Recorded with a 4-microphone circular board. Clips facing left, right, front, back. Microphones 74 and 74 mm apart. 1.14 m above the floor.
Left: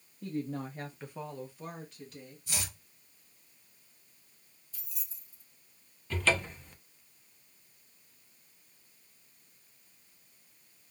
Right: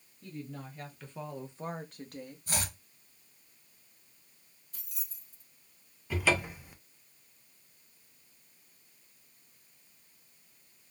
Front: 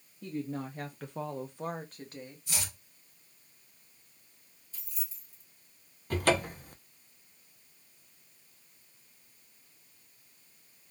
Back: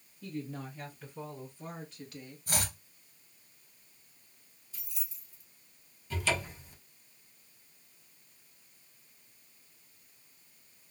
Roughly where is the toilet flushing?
No toilet flushing in this recording.